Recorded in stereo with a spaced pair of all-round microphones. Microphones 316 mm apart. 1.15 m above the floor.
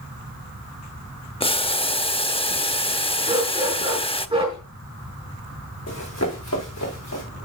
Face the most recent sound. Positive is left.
turn(degrees=55)  # may be behind; listen again after turning